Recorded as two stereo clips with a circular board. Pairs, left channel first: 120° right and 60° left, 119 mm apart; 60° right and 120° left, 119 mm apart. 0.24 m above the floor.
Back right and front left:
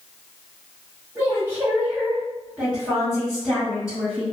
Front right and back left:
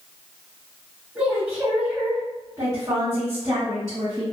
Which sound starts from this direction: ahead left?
A woman speaking, at 1.1 s.